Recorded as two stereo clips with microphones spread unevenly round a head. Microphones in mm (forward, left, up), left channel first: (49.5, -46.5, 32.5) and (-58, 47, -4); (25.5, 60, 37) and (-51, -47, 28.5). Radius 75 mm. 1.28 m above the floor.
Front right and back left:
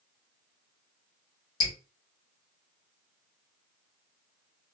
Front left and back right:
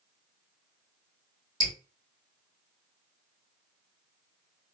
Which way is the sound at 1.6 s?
35° right.